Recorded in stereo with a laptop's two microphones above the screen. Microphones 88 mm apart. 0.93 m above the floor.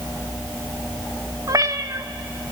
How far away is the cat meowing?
About 0.6 m.